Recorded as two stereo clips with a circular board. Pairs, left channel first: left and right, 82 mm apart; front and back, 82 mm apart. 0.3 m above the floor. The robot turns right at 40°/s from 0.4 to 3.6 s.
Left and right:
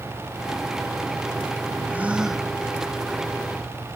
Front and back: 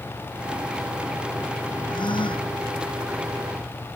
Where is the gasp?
20° right; by 2.5 s 5° left.